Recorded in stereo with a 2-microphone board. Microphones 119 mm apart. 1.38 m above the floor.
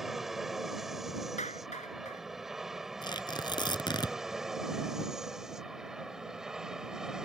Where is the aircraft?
5° right (ahead or behind).